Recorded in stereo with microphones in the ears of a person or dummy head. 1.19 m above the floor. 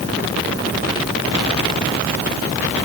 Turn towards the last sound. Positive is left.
No sound to turn to.